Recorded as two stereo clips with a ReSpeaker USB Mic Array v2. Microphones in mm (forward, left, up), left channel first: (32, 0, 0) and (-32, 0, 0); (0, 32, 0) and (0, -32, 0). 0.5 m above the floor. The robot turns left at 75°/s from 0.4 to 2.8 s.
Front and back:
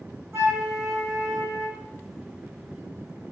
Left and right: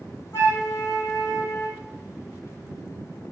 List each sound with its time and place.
0.3 s a flute: 125° left, 1.0 m; by 1.8 s 20° left, 1.0 m